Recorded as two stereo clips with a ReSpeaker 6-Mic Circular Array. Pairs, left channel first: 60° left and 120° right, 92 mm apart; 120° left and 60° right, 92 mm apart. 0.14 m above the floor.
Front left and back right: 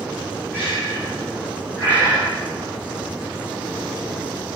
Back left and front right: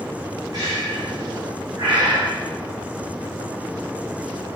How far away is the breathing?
About 4.5 m.